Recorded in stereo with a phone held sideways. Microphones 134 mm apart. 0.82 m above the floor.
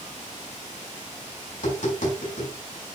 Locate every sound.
1.5 s tapping: 85° left, 5 m